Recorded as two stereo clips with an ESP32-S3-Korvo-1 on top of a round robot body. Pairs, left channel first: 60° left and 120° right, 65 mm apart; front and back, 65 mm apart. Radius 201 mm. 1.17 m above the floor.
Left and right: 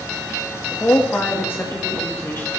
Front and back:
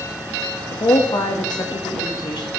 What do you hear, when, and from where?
0.7 s a woman speaking: 5° left, 2 m